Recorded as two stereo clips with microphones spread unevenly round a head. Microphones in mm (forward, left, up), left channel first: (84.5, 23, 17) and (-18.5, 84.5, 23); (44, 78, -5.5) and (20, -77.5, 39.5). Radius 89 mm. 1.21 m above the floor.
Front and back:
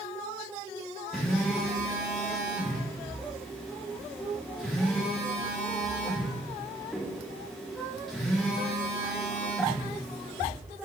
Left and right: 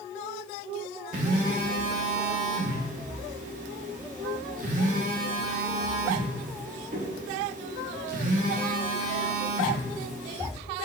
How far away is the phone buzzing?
About 1.1 m.